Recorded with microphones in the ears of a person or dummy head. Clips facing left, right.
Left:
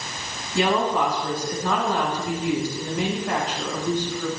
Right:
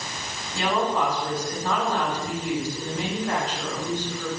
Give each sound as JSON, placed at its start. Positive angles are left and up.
{"t": 0.6, "sound": "a woman speaking", "side_deg": 60, "distance_m": 6.5}